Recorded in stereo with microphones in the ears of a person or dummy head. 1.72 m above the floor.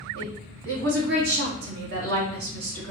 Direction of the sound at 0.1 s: 70° right (ahead or behind).